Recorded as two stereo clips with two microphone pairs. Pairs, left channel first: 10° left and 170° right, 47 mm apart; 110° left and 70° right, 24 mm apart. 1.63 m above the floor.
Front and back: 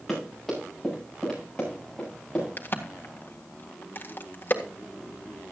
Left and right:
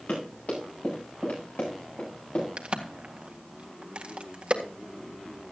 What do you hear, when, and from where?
0.1 s running footsteps: 100° left, 10 m; by 2.5 s 80° left, 9 m
2.6 s a crack: 35° right, 1.7 m